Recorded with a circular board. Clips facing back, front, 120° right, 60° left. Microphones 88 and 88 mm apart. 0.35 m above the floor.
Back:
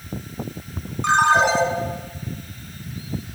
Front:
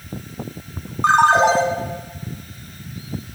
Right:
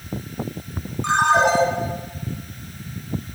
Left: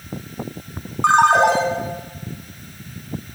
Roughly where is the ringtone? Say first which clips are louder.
Front 3 dB, left 4 dB; ahead left.